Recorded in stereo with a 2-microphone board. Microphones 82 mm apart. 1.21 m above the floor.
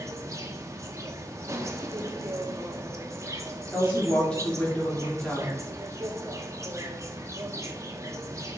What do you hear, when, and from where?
0.0 s an insect: 35° right (ahead or behind), 0.8 m
3.7 s a woman speaking: 10° left (ahead or behind), 2.5 m